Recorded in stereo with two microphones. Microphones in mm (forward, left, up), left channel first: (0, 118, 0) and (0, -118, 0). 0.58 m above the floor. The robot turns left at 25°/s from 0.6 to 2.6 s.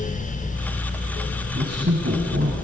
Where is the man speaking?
45° right (ahead or behind), 4 m; by 2.5 s 65° right (ahead or behind), 4 m.